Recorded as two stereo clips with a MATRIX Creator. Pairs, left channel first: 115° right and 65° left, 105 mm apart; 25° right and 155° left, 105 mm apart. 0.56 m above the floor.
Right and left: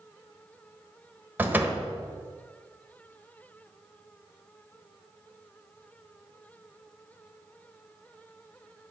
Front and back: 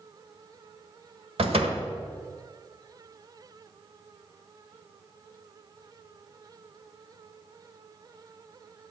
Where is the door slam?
140° left, 1.3 m.